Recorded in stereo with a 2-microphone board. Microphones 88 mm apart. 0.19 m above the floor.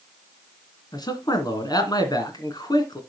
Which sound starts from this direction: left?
A man speaking, at 0.9 s.